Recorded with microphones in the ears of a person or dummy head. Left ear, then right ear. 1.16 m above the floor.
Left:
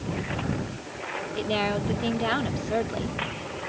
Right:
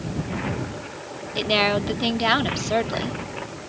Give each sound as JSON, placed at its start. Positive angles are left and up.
{"t": 1.4, "sound": "a woman speaking", "side_deg": -35}